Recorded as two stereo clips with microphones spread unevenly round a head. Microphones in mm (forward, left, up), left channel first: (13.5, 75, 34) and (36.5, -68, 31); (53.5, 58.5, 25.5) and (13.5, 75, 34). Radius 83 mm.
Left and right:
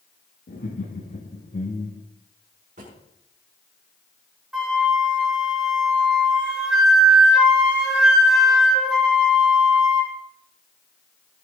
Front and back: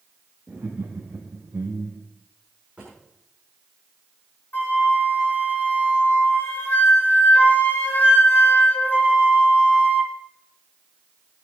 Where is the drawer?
125° right, 6 m.